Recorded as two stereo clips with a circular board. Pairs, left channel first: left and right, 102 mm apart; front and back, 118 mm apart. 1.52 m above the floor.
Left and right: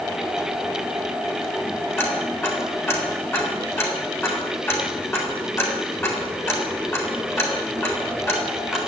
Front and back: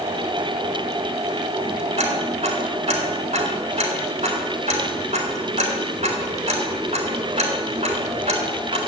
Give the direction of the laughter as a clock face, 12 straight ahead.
I don't hear laughter.